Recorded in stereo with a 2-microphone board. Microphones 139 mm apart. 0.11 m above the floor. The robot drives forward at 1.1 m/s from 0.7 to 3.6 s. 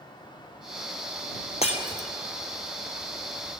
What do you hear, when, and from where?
1.6 s breaking glass: 50° left (ahead or behind), 1.7 m; by 2.1 s 60° left (ahead or behind), 1.6 m